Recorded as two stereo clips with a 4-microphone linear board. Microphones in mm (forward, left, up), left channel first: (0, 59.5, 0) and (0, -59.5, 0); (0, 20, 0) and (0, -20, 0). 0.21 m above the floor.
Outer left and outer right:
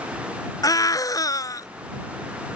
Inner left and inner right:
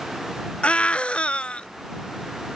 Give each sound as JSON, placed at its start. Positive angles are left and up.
{"t": 0.6, "sound": "a scream", "side_deg": 30}